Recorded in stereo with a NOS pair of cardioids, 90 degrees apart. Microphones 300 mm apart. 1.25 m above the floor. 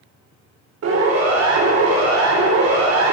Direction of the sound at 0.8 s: 55° right.